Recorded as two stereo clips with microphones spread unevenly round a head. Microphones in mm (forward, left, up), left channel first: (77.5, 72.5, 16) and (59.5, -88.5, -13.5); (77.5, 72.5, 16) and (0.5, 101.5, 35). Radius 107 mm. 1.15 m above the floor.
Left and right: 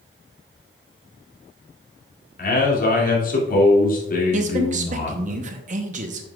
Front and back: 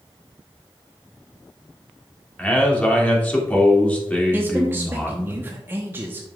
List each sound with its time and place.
2.4 s a man speaking: 50° left, 2.5 m
4.3 s a man speaking: 125° right, 0.8 m